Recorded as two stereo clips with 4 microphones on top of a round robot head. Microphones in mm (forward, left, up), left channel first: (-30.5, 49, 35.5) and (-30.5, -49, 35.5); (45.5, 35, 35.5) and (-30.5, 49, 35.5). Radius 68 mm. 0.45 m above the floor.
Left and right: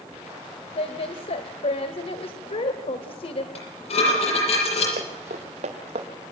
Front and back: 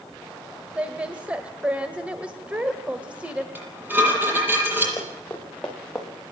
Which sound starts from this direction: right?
Running footsteps, at 5.0 s.